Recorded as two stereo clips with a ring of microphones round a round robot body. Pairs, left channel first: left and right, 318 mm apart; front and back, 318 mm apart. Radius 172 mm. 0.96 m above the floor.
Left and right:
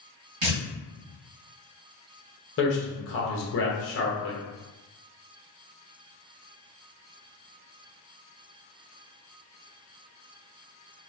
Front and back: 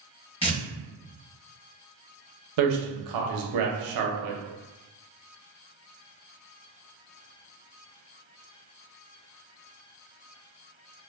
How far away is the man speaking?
About 0.6 m.